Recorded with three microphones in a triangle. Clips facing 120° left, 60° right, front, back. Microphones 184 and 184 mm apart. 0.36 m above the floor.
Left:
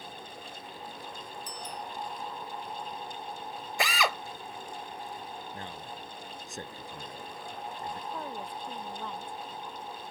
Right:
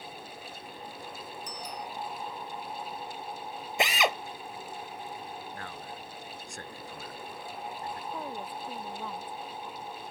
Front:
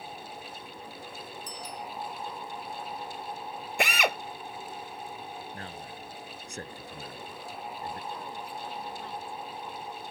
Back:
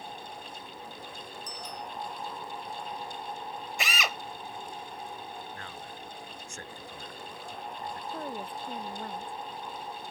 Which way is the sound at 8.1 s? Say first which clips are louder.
Right 1 dB, back 2 dB; 145° right.